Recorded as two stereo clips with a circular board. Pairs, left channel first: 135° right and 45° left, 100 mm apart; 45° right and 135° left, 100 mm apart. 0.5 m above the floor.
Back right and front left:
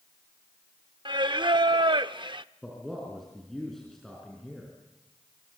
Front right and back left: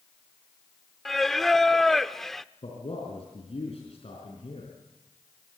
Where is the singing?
40° left, 0.6 m.